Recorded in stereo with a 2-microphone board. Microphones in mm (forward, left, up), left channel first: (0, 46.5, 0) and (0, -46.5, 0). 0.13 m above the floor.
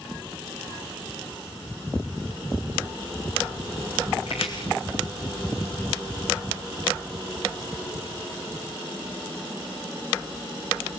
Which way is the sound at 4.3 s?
80° left.